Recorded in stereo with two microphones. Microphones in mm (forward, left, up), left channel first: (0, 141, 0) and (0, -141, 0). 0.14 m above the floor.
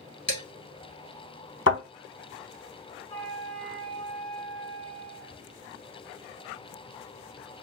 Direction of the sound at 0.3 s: 45° left (ahead or behind).